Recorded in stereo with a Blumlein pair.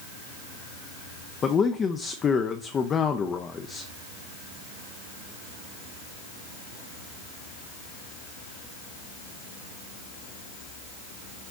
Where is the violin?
I don't hear a violin.